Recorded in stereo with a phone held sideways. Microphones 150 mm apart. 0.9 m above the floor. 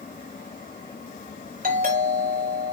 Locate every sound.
0.0 s a fan: 70° left (ahead or behind), 1.8 m
1.6 s a doorbell: 80° right, 6 m